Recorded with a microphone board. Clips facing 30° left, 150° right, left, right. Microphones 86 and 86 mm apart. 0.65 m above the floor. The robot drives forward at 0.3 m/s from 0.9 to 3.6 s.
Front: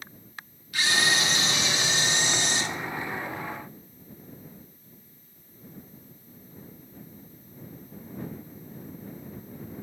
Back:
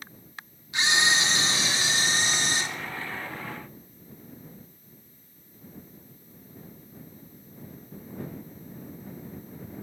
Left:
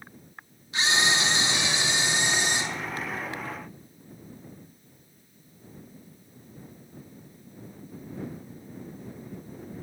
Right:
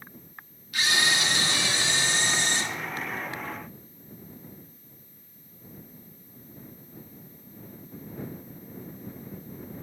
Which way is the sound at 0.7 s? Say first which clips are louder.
Back 1 dB, left 1 dB; 150° left.